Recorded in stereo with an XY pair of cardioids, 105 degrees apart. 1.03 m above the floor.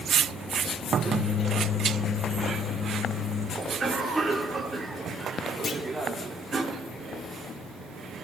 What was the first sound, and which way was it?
A microwave, 55° left.